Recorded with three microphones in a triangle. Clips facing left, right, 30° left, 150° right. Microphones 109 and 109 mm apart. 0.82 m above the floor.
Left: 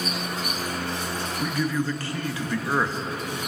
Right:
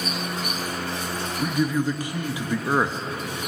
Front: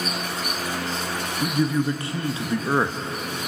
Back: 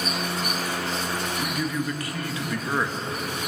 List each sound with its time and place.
1.4 s a man speaking: 25° right, 0.8 m